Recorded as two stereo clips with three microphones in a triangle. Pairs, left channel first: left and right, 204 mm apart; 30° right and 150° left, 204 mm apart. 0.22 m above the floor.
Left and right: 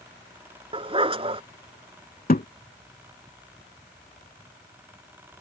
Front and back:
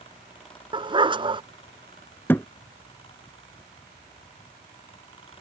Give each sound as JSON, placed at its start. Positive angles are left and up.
{"t": 0.7, "sound": "a dog barking", "azimuth_deg": -145}
{"t": 2.3, "sound": "a thud", "azimuth_deg": 45}